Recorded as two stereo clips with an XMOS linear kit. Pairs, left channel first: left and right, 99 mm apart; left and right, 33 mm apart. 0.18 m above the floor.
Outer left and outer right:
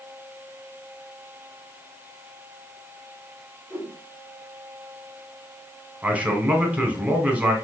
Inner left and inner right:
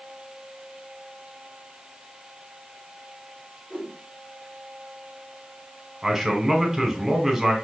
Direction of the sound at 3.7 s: 30° left (ahead or behind).